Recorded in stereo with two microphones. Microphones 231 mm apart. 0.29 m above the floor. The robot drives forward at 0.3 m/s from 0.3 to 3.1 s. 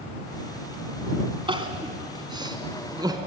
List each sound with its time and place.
1.5 s crying: 20° right (ahead or behind), 1.6 m; by 3.2 s 15° right (ahead or behind), 2 m